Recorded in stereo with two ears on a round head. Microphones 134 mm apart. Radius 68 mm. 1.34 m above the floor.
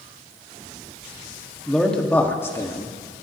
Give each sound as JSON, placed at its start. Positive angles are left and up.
{"t": 1.7, "sound": "a man speaking", "side_deg": 0, "distance_m": 2.5}